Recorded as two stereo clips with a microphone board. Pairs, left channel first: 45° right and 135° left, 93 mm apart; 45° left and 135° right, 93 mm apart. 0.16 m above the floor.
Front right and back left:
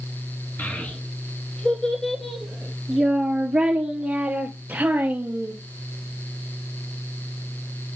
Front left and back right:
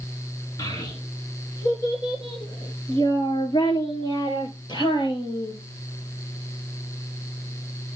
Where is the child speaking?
15° left, 2 m; by 5.5 s 70° left, 3.5 m.